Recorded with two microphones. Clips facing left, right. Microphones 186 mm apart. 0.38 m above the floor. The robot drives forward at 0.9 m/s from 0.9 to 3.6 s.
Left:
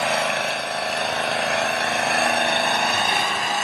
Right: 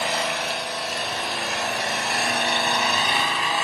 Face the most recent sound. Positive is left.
turn(degrees=45)  # may be behind; listen again after turning